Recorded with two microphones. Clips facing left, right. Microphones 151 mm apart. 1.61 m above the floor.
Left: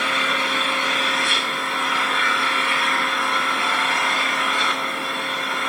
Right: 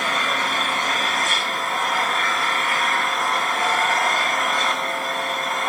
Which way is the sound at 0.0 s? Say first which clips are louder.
Even; 40° right (ahead or behind).